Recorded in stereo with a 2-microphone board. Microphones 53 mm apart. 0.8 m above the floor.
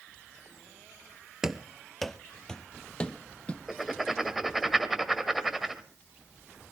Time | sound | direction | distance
1.4 | running footsteps | 10° right (ahead or behind) | 0.9 m
3.7 | writing | 5° right (ahead or behind) | 1.6 m